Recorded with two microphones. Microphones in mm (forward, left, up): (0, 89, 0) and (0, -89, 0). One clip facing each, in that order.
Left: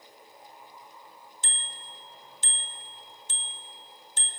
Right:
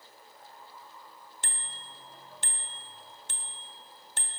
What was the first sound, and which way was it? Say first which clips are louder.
A bicycle bell: even; 60° right (ahead or behind).